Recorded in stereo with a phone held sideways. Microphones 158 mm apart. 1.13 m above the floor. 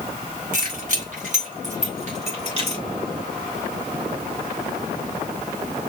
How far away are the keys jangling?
About 3 m.